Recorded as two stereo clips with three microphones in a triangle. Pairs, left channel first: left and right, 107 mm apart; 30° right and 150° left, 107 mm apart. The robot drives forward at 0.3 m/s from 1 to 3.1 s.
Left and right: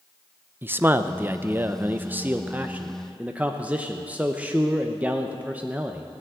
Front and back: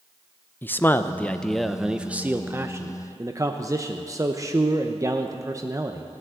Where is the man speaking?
60° right, 0.5 m; by 6.1 s 160° right, 0.8 m.